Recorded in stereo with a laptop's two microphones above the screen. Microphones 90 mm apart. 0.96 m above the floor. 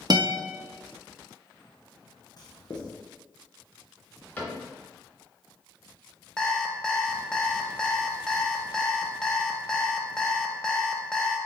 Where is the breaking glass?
I don't hear breaking glass.